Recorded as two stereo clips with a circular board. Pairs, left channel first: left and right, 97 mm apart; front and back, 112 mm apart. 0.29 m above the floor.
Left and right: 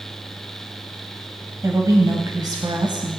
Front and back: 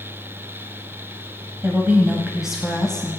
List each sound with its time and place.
1.6 s a woman speaking: 125° right, 1.4 m; by 3.2 s 75° right, 1.7 m